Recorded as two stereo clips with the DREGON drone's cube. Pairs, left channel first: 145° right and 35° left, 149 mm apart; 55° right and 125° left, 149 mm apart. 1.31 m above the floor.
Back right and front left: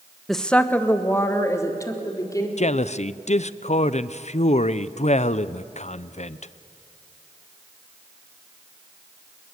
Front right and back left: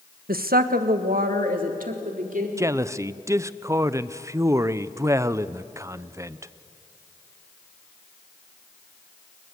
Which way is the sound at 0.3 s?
125° left.